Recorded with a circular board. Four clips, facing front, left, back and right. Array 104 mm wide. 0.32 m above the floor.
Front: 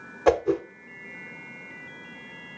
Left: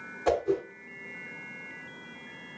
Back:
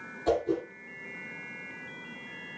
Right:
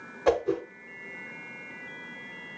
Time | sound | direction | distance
0.3 | a whoosh | 15° right | 1.1 m